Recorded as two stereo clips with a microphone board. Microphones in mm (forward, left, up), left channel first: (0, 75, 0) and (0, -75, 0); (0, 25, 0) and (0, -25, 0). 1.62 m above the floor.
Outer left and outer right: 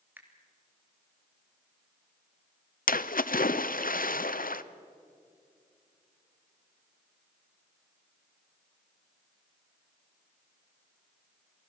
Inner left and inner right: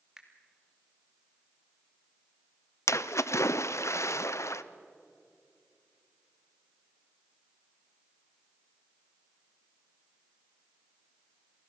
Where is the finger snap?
15° right (ahead or behind), 2.5 m.